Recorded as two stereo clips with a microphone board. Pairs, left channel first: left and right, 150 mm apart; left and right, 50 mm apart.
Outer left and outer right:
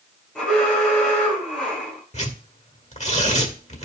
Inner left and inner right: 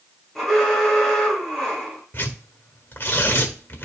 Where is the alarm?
Centre (ahead or behind), 6 m.